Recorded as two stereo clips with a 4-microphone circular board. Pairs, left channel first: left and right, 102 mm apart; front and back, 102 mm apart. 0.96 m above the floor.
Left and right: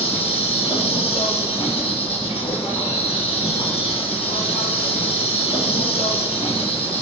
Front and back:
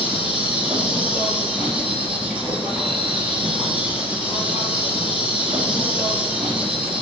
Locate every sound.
0.0 s an insect: 105° left, 4 m